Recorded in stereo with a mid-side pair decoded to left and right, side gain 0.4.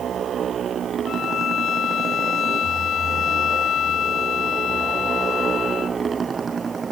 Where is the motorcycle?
60° right; by 6.9 s 40° right.